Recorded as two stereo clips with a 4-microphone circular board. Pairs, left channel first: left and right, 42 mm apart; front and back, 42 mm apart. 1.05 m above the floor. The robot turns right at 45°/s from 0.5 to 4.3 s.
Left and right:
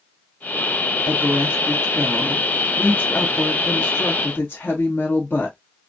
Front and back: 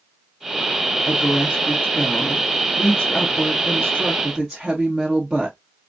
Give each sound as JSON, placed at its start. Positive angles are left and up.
{"t": 1.0, "sound": "a woman speaking", "azimuth_deg": -50, "distance_m": 1.2}